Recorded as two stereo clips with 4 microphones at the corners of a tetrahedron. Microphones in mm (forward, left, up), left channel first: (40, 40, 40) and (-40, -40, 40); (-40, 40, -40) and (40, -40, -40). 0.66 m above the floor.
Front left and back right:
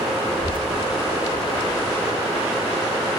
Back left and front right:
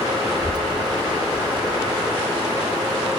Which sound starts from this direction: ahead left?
A child speaking, at 0.3 s.